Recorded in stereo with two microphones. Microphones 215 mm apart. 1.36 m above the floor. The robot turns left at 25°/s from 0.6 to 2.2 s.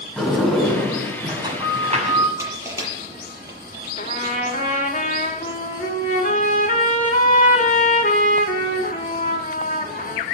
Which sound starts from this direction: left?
A trumpet, at 4.0 s.